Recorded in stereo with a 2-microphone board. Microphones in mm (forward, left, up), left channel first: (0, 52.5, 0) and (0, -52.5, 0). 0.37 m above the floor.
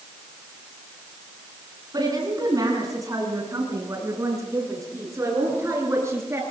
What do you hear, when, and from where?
1.9 s a woman speaking: 35° right (ahead or behind), 4.5 m; by 6.4 s 25° right (ahead or behind), 7 m